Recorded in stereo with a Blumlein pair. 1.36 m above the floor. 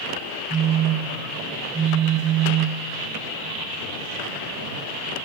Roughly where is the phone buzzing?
Ahead.